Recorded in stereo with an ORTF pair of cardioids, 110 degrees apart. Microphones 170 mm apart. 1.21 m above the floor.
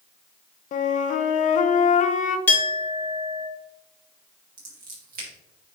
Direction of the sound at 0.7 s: 45° left.